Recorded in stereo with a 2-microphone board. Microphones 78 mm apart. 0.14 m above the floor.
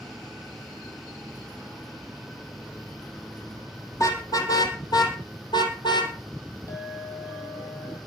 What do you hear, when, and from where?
3.9 s a car horn: 45° left (ahead or behind), 3.5 m; by 6.1 s 75° left (ahead or behind), 3.5 m
6.7 s a clink: 40° left (ahead or behind), 5.5 m